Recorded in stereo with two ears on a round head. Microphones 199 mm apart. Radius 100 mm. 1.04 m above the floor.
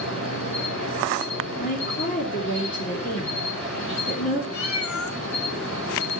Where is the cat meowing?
70° left (ahead or behind), 1.8 m.